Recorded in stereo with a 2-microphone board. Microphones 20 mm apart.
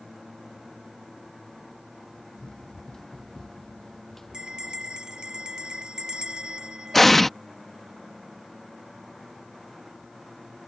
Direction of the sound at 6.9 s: 5° left (ahead or behind).